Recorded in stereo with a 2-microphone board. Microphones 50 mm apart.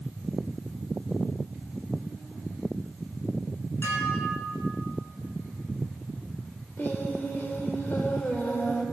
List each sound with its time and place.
3.8 s dishes clattering: 55° left (ahead or behind), 6.5 m
6.8 s singing: 45° left (ahead or behind), 3.5 m